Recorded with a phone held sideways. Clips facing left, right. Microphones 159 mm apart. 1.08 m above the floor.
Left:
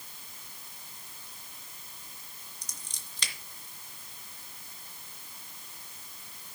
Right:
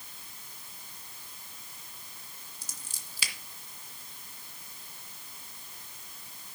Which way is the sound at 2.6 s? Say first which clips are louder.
Right 1 dB; 5° right (ahead or behind).